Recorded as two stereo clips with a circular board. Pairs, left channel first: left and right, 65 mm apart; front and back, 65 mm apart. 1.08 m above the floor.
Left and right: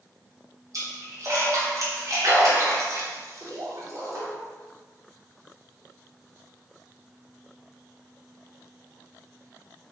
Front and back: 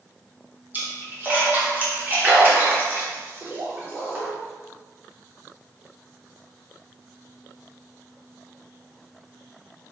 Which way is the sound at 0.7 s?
120° right.